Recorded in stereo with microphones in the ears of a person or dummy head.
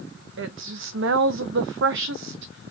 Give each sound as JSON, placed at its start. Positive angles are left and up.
{"t": 0.4, "sound": "a woman speaking", "side_deg": -80, "distance_m": 0.6}